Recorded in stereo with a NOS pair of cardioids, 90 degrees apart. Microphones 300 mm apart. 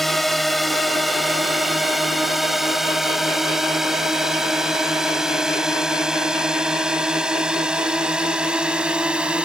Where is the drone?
Straight ahead; by 9.4 s 5° right.